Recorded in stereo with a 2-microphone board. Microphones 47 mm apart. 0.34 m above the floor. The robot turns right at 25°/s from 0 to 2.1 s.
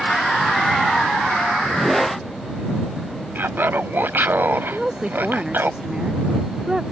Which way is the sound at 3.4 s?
50° right (ahead or behind).